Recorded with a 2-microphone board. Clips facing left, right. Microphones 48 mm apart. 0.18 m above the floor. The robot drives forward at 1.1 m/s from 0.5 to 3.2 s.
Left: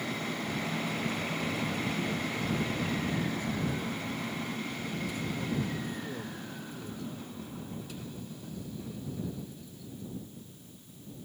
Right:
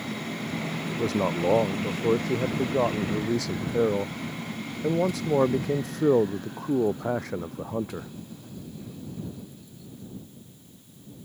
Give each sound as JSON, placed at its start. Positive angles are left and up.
{"t": 0.9, "sound": "a man speaking", "side_deg": -75}